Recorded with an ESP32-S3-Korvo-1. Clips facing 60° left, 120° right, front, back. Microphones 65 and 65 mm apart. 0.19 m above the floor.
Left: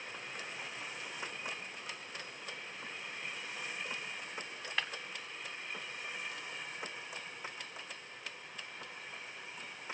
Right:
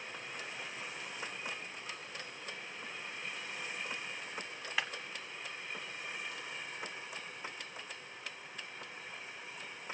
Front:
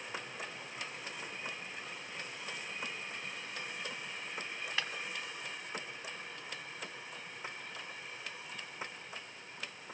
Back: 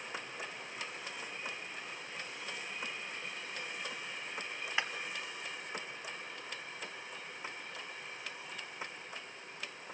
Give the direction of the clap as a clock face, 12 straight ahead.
6 o'clock.